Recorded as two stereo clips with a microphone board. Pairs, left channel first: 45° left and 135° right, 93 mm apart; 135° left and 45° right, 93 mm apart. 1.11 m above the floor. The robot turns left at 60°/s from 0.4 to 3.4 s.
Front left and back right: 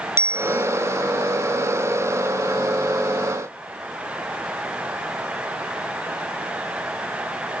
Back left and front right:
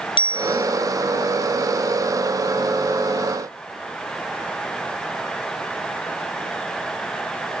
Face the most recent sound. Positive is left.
turn(degrees=-20)